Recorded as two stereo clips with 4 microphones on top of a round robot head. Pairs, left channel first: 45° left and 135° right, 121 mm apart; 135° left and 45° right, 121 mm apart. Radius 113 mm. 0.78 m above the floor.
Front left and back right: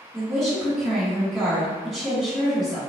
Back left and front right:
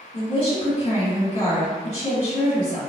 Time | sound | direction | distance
0.1 | a woman speaking | 135° left | 1.7 m